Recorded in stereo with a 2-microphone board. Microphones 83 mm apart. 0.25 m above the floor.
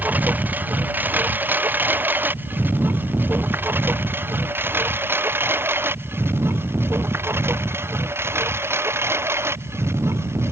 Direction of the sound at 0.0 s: 20° right (ahead or behind).